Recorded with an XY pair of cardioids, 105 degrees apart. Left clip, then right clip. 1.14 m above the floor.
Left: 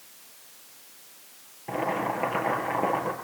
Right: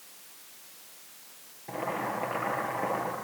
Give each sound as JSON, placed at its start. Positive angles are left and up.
{"t": 1.7, "sound": "boiling", "azimuth_deg": 40, "distance_m": 8.0}